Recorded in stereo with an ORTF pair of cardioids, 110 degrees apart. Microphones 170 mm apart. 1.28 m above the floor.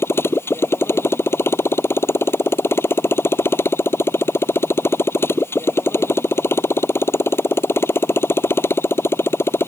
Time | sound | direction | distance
0.0 | a motorcycle | 15° left | ?